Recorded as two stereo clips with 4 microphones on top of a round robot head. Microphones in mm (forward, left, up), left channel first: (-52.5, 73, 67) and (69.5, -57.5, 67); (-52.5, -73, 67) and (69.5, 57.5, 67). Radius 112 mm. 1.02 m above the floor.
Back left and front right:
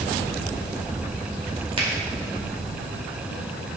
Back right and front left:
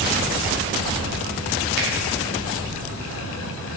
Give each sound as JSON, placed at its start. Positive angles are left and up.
{"t": 1.8, "sound": "a finger snap", "azimuth_deg": 15, "distance_m": 2.0}